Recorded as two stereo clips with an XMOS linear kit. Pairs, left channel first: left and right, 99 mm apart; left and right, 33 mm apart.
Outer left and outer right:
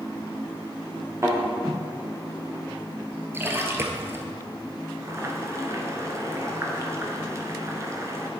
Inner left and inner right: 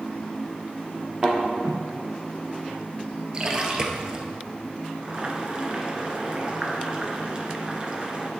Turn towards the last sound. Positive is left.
turn(degrees=-30)  # may be behind; listen again after turning